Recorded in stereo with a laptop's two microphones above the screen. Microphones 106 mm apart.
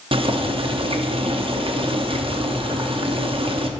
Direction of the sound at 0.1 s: 55° right (ahead or behind).